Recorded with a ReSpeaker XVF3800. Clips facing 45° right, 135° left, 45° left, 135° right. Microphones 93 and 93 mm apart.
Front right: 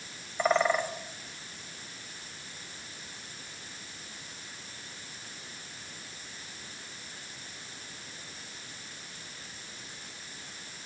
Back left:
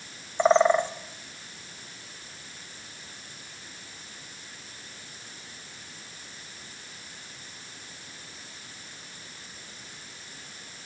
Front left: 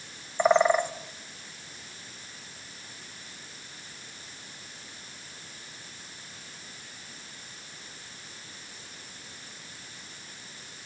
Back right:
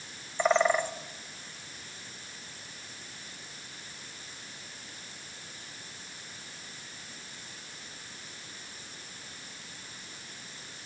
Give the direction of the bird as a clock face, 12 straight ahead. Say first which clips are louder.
Back left 6 dB, front left 4 dB; 9 o'clock.